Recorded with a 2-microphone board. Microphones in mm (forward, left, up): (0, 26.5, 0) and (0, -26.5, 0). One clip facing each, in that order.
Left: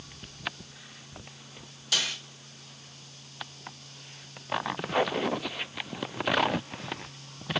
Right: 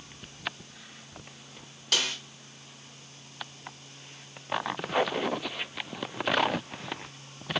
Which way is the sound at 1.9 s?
50° right (ahead or behind).